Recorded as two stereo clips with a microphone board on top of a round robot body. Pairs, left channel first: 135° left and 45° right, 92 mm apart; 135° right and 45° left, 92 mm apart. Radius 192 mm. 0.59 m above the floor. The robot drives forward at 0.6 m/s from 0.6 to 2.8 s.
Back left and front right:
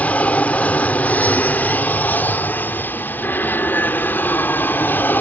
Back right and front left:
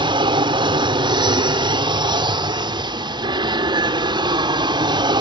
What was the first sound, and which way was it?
An aircraft, 60° left.